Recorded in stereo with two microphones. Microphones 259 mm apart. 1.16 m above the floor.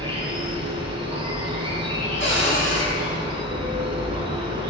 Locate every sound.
0.0 s an insect: 20° right (ahead or behind), 1.1 m
2.2 s a cupboard door: 50° left (ahead or behind), 1.6 m